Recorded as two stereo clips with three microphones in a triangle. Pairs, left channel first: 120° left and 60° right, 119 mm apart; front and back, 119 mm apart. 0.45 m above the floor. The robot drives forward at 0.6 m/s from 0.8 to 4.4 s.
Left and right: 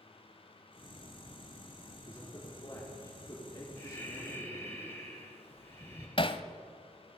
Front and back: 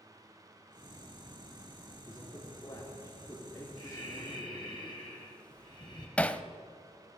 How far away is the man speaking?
About 6 m.